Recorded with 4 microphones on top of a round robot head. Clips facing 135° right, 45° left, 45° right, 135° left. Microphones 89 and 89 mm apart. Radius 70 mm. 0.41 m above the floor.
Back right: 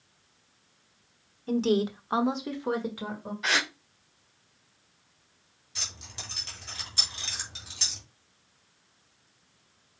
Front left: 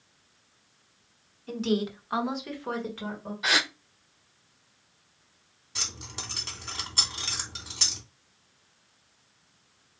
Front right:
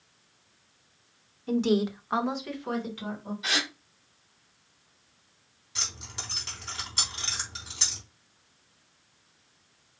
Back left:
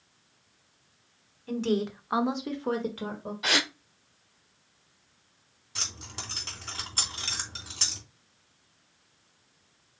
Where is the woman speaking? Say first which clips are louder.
Back right 3 dB, front right 3 dB; 100° right, 1.3 m; by 3.3 s 145° left, 1.8 m.